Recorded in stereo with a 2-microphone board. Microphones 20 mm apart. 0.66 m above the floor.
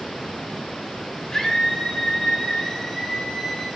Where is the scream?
25° left (ahead or behind), 9 m.